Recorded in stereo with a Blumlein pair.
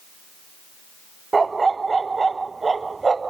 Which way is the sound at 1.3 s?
10° right.